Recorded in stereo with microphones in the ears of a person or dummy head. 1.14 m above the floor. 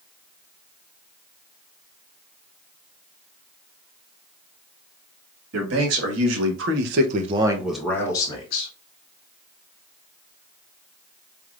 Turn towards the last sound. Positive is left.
turn(degrees=30)  # may be behind; listen again after turning